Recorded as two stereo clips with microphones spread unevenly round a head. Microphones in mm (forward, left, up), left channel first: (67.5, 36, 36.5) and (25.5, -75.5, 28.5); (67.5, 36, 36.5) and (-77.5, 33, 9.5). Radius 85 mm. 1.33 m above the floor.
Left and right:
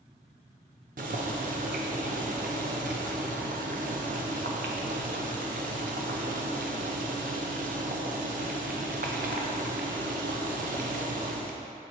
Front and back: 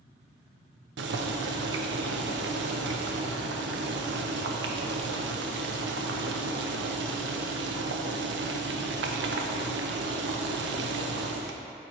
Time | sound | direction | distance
1.0 | boiling | 155° right | 0.5 m